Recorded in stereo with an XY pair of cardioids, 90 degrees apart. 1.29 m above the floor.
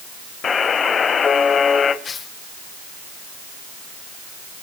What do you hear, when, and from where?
0.4 s a buzzer: 55° left, 4 m
2.0 s tearing paper: 50° left, 6.5 m